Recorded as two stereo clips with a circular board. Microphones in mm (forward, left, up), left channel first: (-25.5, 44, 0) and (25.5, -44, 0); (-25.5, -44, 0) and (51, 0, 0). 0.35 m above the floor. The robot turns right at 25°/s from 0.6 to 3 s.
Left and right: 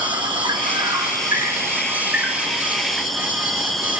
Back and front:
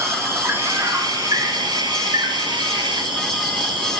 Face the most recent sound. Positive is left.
turn(degrees=35)